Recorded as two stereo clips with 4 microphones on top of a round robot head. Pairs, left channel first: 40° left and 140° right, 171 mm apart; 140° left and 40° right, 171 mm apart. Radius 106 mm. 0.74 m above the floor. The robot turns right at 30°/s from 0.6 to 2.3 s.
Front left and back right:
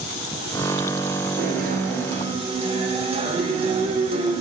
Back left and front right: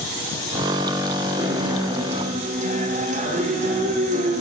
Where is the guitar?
110° right, 2.5 m; by 4.4 s 85° right, 2.5 m.